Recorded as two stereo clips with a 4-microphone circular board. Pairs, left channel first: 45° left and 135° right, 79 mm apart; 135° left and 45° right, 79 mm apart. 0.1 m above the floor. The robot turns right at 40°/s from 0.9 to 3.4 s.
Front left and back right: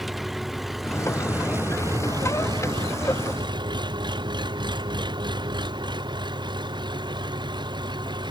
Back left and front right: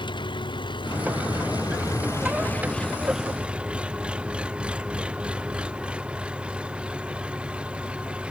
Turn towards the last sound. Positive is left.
turn(degrees=-120)